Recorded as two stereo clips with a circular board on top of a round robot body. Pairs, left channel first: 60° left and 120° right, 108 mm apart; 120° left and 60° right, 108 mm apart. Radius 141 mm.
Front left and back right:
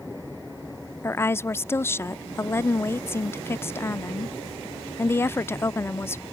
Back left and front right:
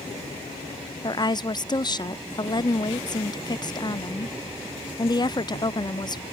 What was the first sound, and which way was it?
A woman speaking, 115° left.